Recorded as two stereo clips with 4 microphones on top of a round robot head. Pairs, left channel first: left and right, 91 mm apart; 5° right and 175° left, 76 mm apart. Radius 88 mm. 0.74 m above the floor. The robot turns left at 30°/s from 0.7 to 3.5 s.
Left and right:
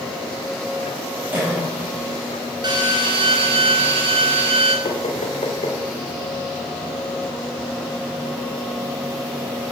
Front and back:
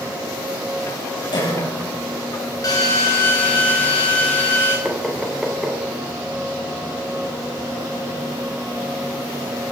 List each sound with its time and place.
1.3 s a cough: 20° right, 6.5 m; by 1.6 s 30° right, 6.5 m
2.6 s a drill: 50° right, 3.5 m; by 4.8 s 75° right, 3.5 m
4.8 s knocking: 90° left, 2.5 m